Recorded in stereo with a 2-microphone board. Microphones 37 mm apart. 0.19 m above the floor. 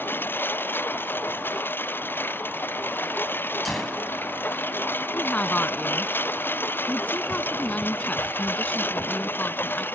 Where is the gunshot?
Centre (ahead or behind).